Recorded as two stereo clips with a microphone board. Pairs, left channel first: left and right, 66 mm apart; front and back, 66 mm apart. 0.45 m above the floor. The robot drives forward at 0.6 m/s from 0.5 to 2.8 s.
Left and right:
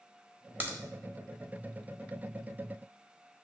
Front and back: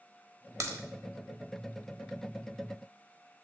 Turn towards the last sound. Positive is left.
turn(degrees=-165)